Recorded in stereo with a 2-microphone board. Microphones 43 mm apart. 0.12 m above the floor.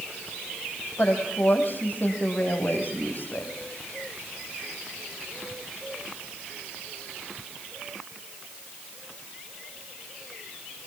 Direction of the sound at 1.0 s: 50° left (ahead or behind).